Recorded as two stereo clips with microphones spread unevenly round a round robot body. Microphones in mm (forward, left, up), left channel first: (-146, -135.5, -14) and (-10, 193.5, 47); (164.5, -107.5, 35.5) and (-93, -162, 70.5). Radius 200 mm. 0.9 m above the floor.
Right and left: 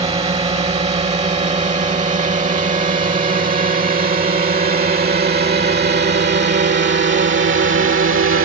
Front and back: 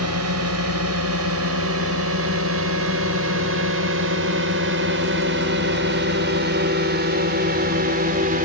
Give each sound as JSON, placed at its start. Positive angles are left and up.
{"t": 0.0, "sound": "a drone", "azimuth_deg": 145}